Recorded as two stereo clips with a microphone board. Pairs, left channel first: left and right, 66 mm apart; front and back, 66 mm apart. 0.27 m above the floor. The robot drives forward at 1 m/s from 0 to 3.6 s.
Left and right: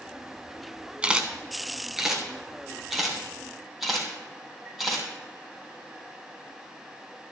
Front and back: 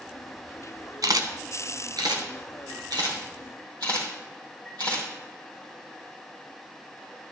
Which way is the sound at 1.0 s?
160° right.